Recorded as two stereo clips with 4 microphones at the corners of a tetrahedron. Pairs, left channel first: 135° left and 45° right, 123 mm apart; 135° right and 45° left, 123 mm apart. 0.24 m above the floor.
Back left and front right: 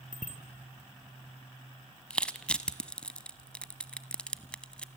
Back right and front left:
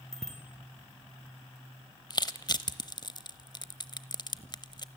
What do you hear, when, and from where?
0.1 s a bicycle bell: 140° left, 3 m
2.1 s crushing: 150° right, 0.9 m